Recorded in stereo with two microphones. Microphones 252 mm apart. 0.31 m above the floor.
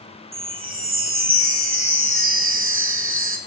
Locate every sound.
0.3 s a chime: 55° right (ahead or behind), 0.5 m